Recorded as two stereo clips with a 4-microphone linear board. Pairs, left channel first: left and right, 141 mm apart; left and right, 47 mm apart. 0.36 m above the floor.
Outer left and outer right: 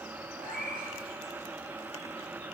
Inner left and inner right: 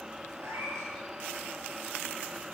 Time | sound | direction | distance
0.4 | a cat meowing | 75° right (ahead or behind) | 6.5 m